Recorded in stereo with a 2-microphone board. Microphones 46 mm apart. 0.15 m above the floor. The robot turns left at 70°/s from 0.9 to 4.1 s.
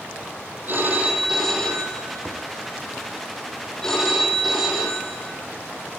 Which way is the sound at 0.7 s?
140° right.